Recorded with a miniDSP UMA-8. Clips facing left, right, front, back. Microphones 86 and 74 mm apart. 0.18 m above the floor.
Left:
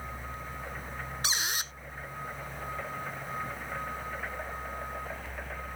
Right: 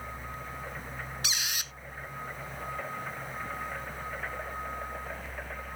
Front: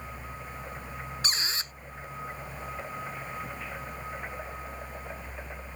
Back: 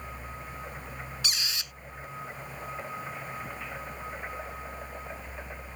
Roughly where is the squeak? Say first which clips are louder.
Left 3 dB, front 3 dB; ahead left.